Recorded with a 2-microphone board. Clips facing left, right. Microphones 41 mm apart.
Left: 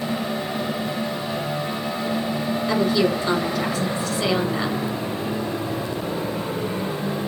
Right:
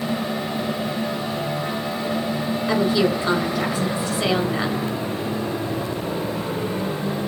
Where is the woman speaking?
25° right (ahead or behind), 4 m.